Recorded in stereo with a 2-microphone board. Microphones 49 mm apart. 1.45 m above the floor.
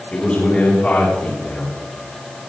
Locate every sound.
0.1 s a man speaking: 25° left (ahead or behind), 4.5 m